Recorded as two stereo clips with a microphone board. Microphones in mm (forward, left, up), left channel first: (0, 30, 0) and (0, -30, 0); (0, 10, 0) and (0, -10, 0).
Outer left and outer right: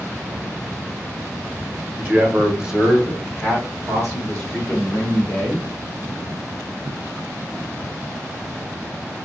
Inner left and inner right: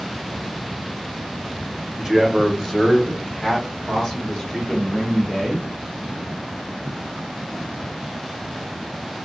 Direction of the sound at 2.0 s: 25° right (ahead or behind).